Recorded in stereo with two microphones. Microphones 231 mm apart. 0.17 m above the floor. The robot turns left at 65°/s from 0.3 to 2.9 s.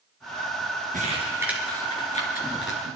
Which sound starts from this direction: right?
Crumpling, at 0.9 s.